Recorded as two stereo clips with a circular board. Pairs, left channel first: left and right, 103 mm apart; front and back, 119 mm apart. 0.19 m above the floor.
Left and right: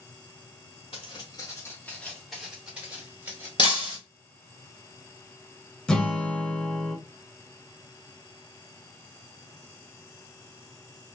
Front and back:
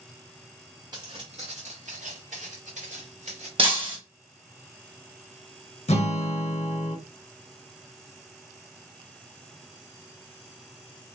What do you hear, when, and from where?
0.9 s footsteps: 125° left, 0.8 m; by 3.5 s 155° right, 1.5 m
3.6 s breaking glass: 135° left, 1.3 m
5.9 s a guitar: 10° left, 0.6 m